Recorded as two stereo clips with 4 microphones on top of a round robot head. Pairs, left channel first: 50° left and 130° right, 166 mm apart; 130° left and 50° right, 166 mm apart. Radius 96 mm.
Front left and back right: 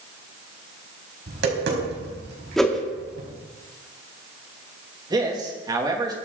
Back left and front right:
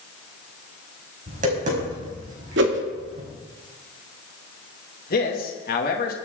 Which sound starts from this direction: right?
Tapping, at 1.3 s.